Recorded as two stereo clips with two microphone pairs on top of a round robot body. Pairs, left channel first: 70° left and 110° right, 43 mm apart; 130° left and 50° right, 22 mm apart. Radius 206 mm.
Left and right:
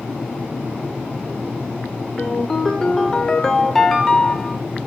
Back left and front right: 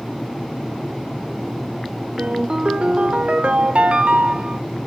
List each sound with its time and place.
2.2 s a ringtone: 10° right, 0.6 m